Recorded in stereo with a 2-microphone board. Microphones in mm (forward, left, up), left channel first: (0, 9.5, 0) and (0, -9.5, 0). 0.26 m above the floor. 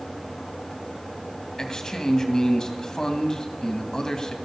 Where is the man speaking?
30° left (ahead or behind), 2 m.